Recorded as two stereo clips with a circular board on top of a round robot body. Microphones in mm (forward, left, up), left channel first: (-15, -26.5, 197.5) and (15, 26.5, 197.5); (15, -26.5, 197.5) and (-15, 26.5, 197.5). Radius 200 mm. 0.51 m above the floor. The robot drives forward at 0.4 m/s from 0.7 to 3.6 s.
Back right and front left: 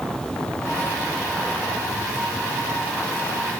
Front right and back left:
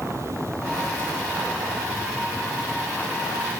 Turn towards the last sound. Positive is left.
turn(degrees=165)